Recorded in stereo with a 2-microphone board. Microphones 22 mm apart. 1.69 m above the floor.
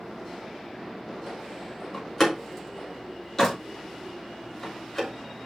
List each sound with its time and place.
1.9 s a door slam: 20° left (ahead or behind), 2.5 m